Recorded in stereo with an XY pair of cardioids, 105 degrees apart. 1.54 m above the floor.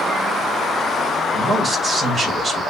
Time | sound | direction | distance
1.3 | a man speaking | 40° right | 2.5 m